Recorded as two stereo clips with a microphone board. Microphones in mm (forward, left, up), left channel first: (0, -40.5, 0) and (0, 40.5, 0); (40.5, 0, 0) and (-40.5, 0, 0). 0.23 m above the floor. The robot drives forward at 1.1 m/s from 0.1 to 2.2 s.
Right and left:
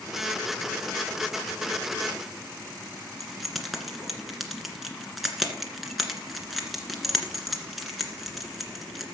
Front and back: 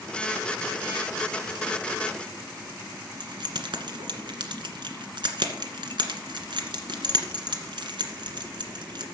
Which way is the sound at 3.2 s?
Straight behind.